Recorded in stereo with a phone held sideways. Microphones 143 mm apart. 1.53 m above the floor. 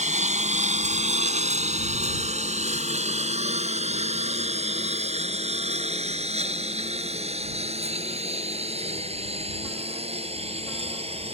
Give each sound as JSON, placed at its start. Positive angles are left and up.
{"t": 0.0, "sound": "a lawn mower", "side_deg": -55}